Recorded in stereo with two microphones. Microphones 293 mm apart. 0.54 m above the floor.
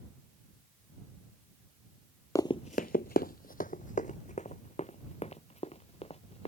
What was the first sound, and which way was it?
Running footsteps, 10° left (ahead or behind).